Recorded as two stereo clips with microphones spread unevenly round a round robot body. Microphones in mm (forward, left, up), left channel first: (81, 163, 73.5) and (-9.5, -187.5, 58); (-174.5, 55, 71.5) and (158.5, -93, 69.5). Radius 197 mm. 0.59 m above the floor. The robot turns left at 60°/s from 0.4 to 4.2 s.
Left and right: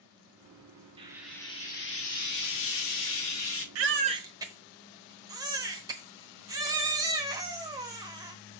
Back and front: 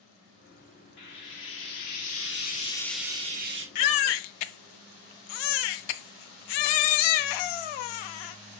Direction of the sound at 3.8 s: 160° right.